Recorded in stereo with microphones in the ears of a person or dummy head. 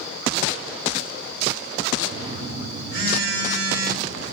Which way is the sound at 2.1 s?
55° right (ahead or behind).